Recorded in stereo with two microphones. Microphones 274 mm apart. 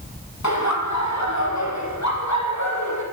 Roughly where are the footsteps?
I don't hear footsteps.